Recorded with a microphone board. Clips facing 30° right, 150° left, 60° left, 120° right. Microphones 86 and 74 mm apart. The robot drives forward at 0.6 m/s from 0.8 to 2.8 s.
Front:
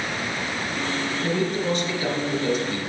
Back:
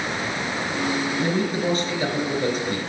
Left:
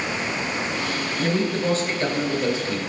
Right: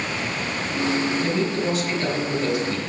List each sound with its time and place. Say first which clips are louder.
1.2 s a man speaking: front 1 dB, even; 100° left, 2.5 m; by 2.8 s 120° left, 3 m